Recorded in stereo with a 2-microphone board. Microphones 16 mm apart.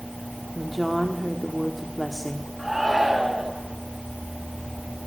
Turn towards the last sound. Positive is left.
turn(degrees=-20)  # may be behind; listen again after turning